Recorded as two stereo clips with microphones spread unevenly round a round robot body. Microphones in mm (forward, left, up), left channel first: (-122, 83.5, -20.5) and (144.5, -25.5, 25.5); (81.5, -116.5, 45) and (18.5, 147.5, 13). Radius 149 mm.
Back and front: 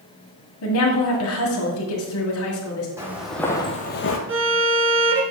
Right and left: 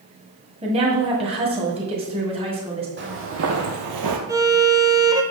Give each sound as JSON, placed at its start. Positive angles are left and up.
{"t": 0.6, "sound": "a woman speaking", "azimuth_deg": 165, "distance_m": 1.8}
{"t": 3.0, "sound": "footsteps", "azimuth_deg": 55, "distance_m": 2.0}
{"t": 4.3, "sound": "a violin", "azimuth_deg": 25, "distance_m": 1.2}